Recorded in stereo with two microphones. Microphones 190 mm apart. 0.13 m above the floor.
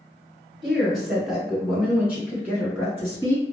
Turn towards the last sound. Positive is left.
turn(degrees=-10)  # may be behind; listen again after turning